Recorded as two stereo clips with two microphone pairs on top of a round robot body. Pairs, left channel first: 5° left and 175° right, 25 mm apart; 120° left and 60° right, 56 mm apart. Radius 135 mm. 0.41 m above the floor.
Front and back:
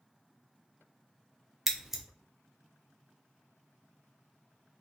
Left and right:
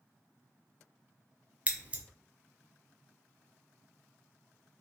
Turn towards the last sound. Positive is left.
turn(degrees=-100)